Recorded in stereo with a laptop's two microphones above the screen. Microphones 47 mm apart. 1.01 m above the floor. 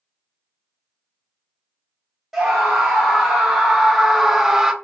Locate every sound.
2.3 s a scream: 5° right (ahead or behind), 1.7 m; by 4.7 s 10° right (ahead or behind), 0.6 m